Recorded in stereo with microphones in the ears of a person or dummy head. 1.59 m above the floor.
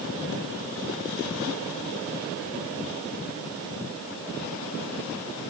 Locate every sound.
Only background noise.